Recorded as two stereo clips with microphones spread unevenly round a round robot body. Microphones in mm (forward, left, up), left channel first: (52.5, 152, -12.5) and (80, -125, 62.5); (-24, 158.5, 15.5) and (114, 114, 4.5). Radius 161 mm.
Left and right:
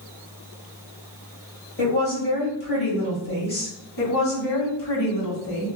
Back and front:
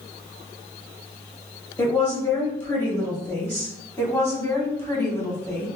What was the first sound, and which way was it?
A woman speaking, 85° left.